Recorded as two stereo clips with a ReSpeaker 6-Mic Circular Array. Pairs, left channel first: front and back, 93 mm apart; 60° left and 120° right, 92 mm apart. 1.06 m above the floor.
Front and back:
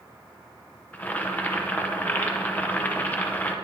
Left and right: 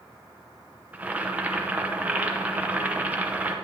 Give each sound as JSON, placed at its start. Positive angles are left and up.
{"t": 0.9, "sound": "boiling", "azimuth_deg": -60, "distance_m": 0.7}